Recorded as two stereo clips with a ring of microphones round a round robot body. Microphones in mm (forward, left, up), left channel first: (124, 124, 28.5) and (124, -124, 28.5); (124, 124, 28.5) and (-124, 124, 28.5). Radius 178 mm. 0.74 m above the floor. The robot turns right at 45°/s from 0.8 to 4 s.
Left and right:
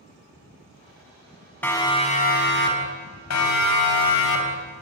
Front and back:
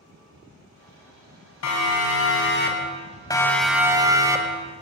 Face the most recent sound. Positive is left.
turn(degrees=100)